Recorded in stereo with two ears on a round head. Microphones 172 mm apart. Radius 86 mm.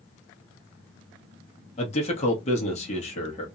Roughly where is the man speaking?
Left.